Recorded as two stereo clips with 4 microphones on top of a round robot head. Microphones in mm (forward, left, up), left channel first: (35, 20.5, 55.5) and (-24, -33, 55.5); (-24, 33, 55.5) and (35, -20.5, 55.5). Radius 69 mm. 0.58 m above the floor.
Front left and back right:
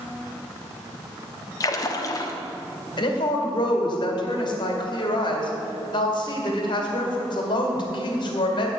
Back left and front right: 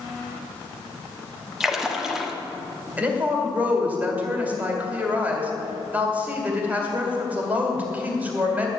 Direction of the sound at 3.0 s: 25° left.